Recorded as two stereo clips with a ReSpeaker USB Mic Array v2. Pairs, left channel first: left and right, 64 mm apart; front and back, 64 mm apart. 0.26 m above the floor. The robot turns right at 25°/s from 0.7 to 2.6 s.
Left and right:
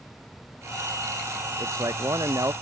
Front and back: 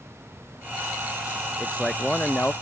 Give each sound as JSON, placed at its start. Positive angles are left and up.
{"t": 1.6, "sound": "a man speaking", "azimuth_deg": -90}